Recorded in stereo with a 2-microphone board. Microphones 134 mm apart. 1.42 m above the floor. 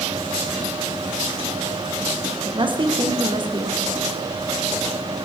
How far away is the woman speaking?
About 1.4 m.